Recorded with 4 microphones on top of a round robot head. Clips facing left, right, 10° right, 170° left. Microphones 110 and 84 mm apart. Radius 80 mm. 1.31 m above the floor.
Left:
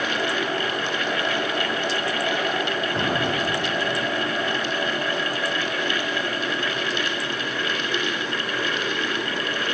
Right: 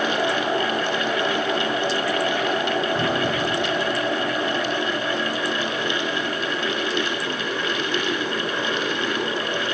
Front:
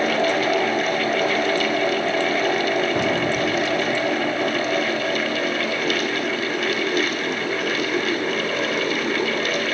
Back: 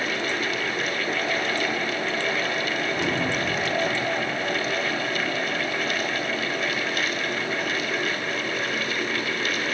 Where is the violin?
I don't hear a violin.